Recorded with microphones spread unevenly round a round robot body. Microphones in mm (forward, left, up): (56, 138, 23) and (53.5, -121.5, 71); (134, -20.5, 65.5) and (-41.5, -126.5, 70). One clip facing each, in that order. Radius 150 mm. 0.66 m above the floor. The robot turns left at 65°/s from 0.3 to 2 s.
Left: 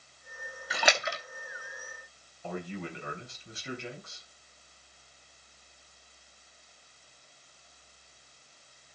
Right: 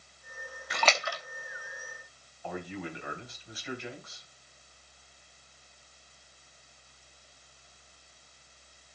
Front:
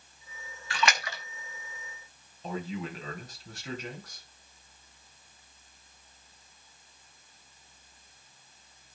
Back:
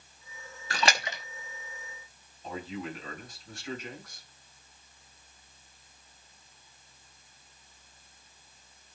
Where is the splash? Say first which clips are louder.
Left 1 dB, back 1 dB; 170° left, 0.7 m; by 1.2 s 135° left, 0.7 m.